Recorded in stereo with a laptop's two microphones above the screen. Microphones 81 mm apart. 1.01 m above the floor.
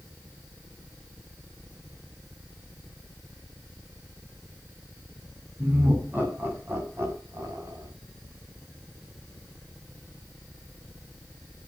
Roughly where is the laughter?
Right.